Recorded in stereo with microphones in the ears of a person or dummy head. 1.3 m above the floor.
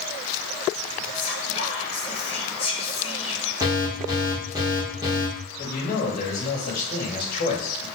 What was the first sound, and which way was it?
Whispering, 30° left (ahead or behind).